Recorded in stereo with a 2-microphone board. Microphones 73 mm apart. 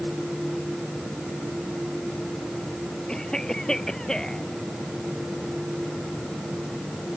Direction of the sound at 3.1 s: 10° left (ahead or behind).